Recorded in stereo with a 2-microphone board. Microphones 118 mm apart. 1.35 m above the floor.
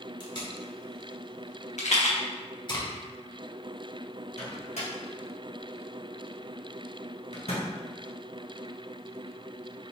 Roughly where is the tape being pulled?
Left.